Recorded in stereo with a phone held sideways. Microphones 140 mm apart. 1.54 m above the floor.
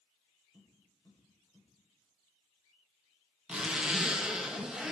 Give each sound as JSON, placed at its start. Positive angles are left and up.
{"t": 0.5, "sound": "tapping", "side_deg": 30, "distance_m": 9.5}
{"t": 3.5, "sound": "a zipper", "side_deg": -10, "distance_m": 1.6}